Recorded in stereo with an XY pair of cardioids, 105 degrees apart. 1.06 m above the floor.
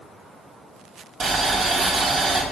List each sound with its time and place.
1.2 s boiling: 55° right, 2 m